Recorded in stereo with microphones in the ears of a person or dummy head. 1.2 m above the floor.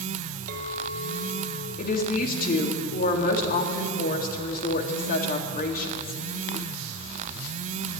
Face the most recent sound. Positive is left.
turn(degrees=45)  # may be behind; listen again after turning